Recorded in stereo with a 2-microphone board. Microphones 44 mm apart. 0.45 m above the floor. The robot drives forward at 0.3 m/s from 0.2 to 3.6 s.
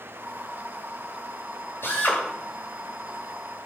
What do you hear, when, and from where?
1.8 s a drill: 65° left (ahead or behind), 9.5 m